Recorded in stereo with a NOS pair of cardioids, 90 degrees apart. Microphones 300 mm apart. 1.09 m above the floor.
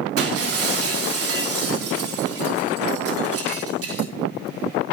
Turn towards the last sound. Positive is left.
turn(degrees=-50)